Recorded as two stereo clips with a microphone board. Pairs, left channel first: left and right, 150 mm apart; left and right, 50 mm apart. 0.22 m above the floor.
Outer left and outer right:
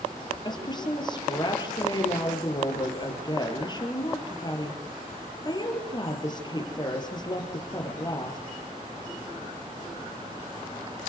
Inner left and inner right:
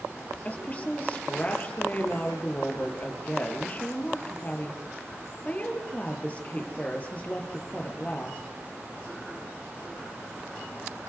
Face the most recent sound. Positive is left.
turn(degrees=30)  # may be behind; listen again after turning